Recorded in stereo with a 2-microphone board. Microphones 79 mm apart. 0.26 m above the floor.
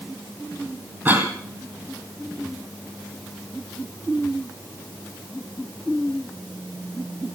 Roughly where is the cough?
Right.